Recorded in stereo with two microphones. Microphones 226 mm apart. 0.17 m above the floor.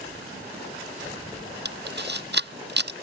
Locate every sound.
1.6 s a camera shutter: 50° right (ahead or behind)